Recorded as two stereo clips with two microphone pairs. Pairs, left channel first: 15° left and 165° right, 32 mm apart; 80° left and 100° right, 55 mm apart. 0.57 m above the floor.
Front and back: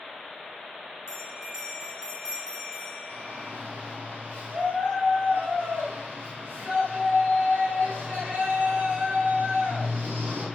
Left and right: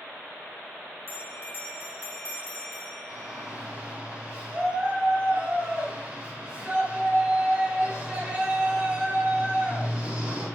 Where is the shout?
175° right, 3.5 m.